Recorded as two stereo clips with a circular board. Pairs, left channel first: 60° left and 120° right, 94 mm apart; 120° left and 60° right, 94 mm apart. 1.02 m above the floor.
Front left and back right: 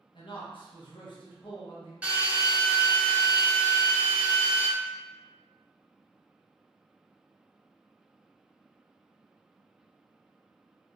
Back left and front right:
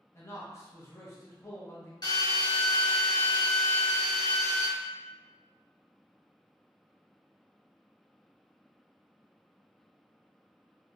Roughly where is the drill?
Behind.